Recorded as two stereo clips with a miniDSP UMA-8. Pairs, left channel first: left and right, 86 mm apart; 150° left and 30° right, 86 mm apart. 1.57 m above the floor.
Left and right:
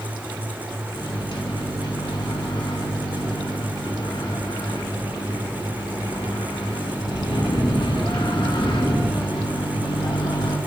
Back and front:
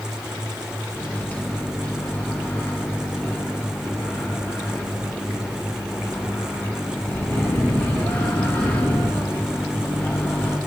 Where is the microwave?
80° left, 2 m.